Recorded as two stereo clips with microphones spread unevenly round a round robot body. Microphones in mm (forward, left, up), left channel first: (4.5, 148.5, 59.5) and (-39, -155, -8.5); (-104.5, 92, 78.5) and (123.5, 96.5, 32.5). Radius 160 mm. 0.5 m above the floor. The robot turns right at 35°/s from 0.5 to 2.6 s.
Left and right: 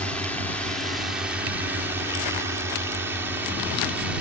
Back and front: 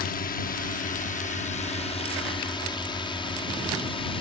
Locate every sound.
0.0 s a drone: 170° right; by 4.2 s 125° right